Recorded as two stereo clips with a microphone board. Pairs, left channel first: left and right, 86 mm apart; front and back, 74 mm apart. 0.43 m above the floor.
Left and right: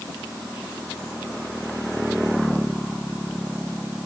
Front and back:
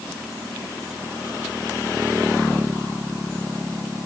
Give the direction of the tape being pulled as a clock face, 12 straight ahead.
I don't hear tape being pulled.